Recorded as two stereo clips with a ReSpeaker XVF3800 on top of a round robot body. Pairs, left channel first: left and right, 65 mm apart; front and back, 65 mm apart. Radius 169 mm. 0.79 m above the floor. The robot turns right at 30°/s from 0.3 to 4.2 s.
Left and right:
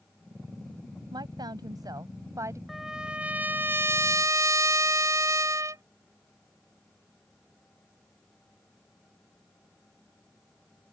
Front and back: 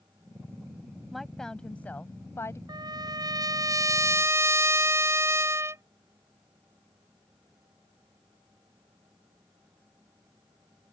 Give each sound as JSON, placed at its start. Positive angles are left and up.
{"t": 1.1, "sound": "a woman speaking", "azimuth_deg": -90}
{"t": 2.7, "sound": "a trumpet", "azimuth_deg": -175}